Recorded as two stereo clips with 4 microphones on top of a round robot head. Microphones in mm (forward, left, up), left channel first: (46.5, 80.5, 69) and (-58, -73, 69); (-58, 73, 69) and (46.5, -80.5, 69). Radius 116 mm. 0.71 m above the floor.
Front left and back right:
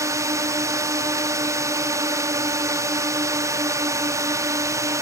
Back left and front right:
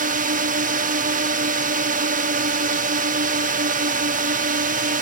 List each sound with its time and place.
0.0 s a drone: 55° right